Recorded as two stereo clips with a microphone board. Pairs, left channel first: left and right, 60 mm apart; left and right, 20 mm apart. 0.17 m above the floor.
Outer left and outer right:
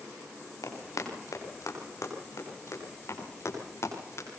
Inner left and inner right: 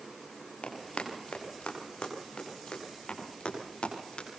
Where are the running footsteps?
80° left, 8.5 m; by 4.3 s 55° left (ahead or behind), 11.5 m.